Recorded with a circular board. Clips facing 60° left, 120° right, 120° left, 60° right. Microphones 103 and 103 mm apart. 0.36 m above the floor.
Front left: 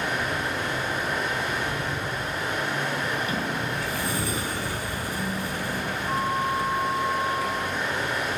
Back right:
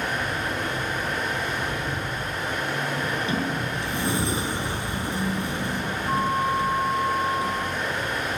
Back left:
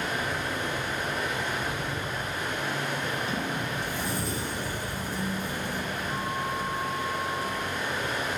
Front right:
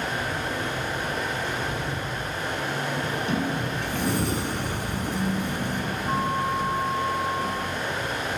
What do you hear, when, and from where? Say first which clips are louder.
0.0 s running water: even, front right 2 dB; 25° right, 8 m
3.0 s a sliding door: back right 2 dB, front right 4 dB; 55° right, 2 m